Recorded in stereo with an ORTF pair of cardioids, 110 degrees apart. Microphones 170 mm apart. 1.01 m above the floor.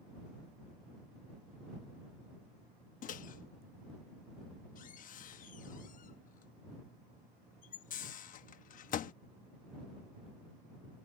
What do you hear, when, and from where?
3.0 s a microwave: 50° left